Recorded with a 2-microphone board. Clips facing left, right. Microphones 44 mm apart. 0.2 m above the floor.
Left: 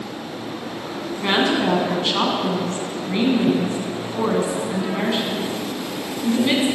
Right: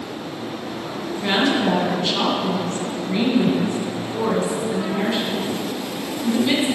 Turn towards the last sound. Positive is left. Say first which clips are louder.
# even
turn(degrees=30)  # may be behind; listen again after turning